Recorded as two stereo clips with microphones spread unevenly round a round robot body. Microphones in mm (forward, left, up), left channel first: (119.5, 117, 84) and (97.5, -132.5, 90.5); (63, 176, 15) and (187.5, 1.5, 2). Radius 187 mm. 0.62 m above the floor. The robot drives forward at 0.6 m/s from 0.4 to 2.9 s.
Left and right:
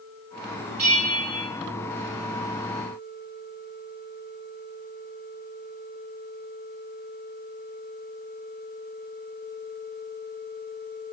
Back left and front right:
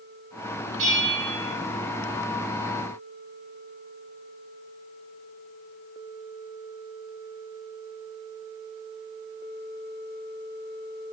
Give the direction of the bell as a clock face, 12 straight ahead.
3 o'clock.